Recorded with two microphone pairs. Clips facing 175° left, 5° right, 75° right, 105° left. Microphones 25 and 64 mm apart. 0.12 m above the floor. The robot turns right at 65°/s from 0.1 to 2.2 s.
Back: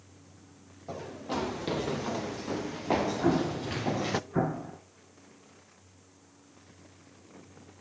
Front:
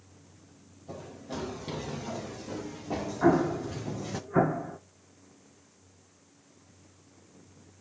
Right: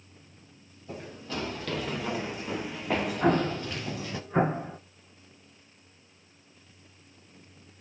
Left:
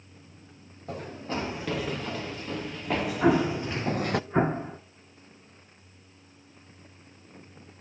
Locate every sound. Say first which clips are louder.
0.9 s running footsteps: back 5 dB, left 4 dB; 135° left, 4 m; by 4.2 s 125° left, 0.7 m
3.2 s an explosion: front 3 dB, left 3 dB; 30° left, 1.4 m